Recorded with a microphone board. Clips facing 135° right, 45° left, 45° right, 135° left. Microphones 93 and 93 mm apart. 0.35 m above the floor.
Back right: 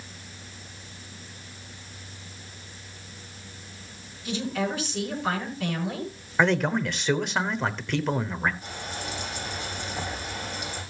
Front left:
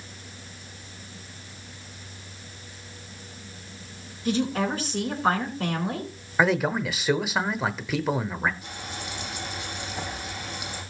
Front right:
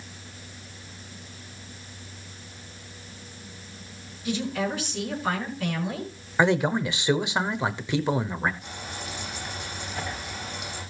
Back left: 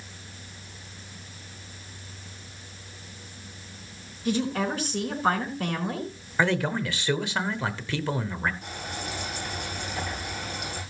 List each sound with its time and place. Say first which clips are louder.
4.2 s a woman speaking: front left 4 dB, back left 2 dB; 90° left, 4.5 m
6.4 s a man speaking: even, front right 3 dB; 30° right, 0.9 m
8.6 s frying: back right 2 dB, back left 2 dB; 170° left, 8.5 m